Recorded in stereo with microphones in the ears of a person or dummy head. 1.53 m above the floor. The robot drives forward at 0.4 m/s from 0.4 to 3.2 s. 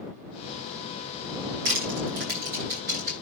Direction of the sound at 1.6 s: 55° right (ahead or behind).